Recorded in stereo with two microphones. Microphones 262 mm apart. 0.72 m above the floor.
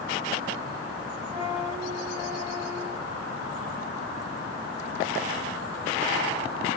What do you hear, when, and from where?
1.3 s a flute: 65° left (ahead or behind), 2.0 m